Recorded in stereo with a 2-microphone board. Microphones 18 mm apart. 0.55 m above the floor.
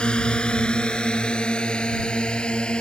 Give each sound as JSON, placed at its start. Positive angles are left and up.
{"t": 0.0, "sound": "a drone", "side_deg": 70}